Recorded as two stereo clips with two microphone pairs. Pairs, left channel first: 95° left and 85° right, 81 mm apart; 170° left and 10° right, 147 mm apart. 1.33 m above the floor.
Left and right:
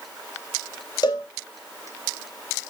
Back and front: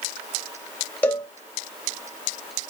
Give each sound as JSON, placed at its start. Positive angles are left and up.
{"t": 1.0, "sound": "a cowbell", "azimuth_deg": 90, "distance_m": 1.7}